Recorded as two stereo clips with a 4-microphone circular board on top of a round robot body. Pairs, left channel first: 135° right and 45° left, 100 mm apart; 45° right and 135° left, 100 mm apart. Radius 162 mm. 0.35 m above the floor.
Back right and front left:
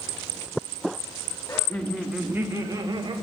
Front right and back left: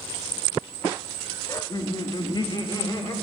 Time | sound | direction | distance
1.5 | laughter | 85° right | 1.6 m